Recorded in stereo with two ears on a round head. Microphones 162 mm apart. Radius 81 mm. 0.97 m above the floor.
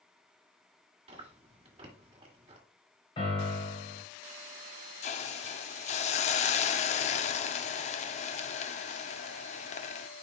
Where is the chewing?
30° right (ahead or behind), 2.5 m.